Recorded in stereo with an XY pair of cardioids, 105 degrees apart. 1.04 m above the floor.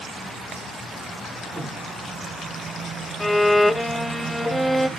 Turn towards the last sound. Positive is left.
turn(degrees=5)